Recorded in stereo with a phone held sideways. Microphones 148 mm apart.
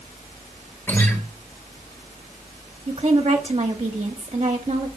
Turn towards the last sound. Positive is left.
turn(degrees=-40)  # may be behind; listen again after turning